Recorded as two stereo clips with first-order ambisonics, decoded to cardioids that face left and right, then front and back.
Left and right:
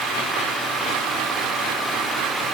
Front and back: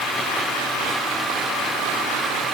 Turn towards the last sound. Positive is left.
No sound to turn to.